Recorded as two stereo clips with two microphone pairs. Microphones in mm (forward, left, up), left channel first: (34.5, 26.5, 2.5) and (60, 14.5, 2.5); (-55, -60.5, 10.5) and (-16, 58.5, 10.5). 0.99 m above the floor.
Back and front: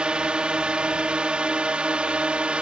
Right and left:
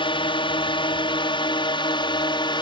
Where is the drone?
75° right; by 2.6 s 65° right.